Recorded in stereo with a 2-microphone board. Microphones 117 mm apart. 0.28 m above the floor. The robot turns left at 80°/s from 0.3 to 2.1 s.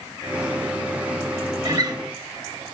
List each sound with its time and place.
1.6 s a guitar: 35° right (ahead or behind), 0.9 m